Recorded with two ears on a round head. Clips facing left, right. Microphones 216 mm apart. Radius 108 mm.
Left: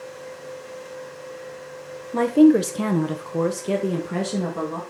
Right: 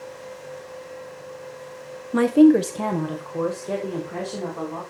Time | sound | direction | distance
2.1 | a woman speaking | 20° right (ahead or behind) | 0.7 m